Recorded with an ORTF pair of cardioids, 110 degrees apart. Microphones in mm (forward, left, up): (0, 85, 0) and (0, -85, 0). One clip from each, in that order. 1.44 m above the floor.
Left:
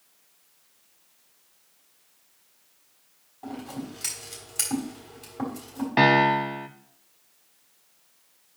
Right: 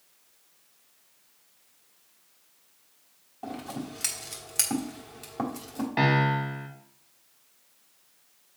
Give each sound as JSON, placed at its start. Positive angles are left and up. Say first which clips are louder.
{"t": 3.4, "sound": "scissors", "louder": "even", "azimuth_deg": -30, "distance_m": 3.5}
{"t": 6.0, "sound": "a piano", "louder": "left 6 dB", "azimuth_deg": 25, "distance_m": 1.1}